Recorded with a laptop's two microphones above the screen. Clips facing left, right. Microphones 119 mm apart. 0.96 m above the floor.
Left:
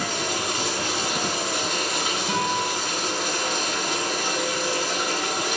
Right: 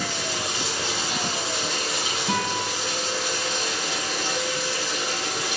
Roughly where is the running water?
Left.